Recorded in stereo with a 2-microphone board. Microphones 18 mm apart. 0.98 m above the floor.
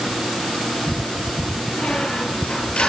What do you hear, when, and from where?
1.7 s a squeak: 70° left (ahead or behind), 7.5 m